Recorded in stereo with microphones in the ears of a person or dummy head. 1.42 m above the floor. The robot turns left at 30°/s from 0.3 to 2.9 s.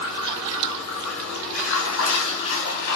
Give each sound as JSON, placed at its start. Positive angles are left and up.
{"t": 0.0, "sound": "running water", "azimuth_deg": 140, "distance_m": 3.0}